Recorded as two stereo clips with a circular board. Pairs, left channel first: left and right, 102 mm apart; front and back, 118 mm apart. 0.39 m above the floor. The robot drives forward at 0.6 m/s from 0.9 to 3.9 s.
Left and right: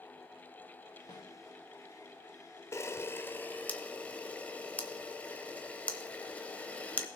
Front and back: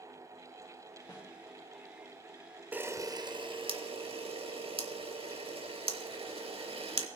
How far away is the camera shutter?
About 0.6 m.